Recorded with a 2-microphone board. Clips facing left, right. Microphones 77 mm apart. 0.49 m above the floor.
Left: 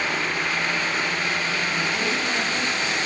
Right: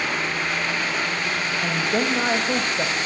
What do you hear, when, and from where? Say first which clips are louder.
1.6 s a woman speaking: right 2 dB; 70° right (ahead or behind), 3 m